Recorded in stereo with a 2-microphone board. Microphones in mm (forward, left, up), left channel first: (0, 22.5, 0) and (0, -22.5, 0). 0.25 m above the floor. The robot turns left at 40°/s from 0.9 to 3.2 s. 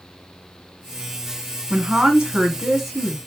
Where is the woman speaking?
20° right (ahead or behind), 1.1 m; by 3.2 s centre (ahead or behind), 1.1 m.